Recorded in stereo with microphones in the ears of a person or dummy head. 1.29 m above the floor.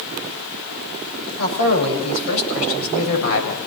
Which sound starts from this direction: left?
A man speaking, at 1.4 s.